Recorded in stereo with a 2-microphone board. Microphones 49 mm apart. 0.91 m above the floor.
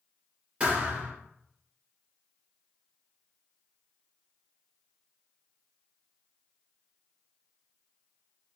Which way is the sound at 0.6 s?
30° right (ahead or behind).